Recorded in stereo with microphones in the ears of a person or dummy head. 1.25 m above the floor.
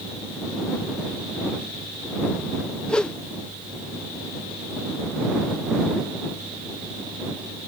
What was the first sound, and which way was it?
A whoosh, 5° left (ahead or behind).